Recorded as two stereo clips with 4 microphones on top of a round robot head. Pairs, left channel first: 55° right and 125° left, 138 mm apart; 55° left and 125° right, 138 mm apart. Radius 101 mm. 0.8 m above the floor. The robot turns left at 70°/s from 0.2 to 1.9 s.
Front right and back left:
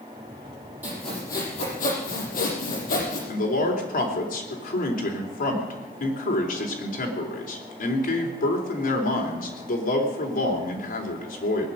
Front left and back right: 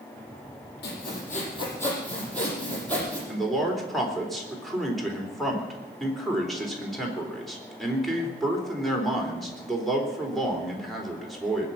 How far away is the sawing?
About 6.5 m.